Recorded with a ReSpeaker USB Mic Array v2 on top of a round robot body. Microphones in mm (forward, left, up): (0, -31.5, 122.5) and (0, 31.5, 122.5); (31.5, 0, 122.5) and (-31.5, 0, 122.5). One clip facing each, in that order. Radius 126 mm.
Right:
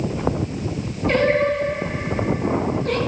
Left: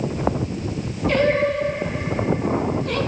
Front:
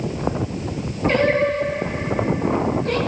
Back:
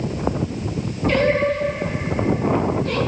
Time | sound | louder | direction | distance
1.1 | singing | right 1 dB, even | 55° right | 7.5 m